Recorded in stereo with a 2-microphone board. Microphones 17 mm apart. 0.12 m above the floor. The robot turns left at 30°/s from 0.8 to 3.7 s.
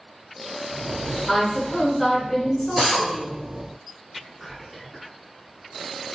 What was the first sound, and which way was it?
A woman speaking, 25° left (ahead or behind).